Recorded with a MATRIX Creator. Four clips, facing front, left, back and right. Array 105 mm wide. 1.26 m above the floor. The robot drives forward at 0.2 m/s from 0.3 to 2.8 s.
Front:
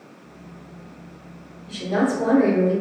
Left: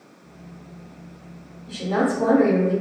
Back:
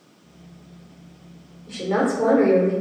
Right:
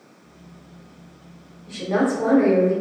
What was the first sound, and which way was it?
A woman speaking, 160° right.